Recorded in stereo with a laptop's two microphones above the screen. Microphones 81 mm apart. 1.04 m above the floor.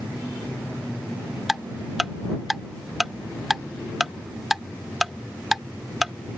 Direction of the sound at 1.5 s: 5° right (ahead or behind).